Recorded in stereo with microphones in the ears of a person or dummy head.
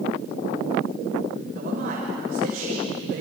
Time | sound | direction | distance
1.6 | a man speaking | 50° right (ahead or behind) | 6 m